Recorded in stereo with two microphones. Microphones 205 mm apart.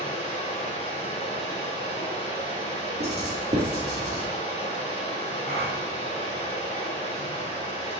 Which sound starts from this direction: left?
Running water, at 0.0 s.